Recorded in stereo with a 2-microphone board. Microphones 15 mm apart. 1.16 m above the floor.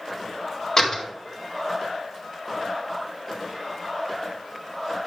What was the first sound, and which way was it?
A door slam, 35° left (ahead or behind).